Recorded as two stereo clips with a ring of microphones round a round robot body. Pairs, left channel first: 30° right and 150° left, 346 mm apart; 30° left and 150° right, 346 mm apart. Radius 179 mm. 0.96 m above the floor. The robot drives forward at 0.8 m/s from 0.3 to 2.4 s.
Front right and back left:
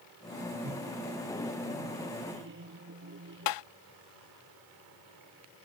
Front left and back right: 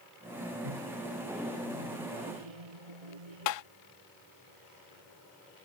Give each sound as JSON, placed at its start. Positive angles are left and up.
{"t": 0.6, "sound": "a microwave", "azimuth_deg": -150}
{"t": 3.5, "sound": "tapping", "azimuth_deg": -5}